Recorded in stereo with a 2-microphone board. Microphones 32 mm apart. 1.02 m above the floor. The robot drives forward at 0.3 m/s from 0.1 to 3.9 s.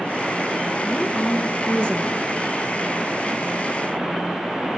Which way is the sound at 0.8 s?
35° left (ahead or behind).